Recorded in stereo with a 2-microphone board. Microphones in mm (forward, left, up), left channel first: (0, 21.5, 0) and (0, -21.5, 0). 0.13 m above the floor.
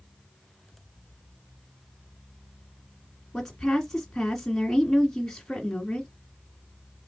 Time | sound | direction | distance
3.3 | a woman speaking | 10° left (ahead or behind) | 1.6 m